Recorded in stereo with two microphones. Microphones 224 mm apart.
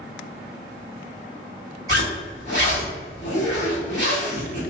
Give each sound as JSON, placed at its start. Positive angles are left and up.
{"t": 1.9, "sound": "a zipper", "side_deg": 55, "distance_m": 1.5}